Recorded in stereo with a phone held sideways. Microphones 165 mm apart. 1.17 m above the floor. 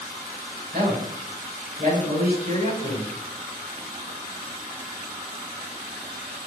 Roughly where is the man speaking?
Right.